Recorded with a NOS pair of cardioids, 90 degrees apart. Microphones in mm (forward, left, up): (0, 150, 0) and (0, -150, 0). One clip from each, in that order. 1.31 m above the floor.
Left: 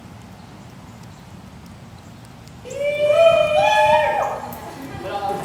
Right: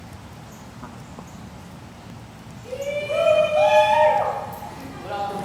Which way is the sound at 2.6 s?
65° left.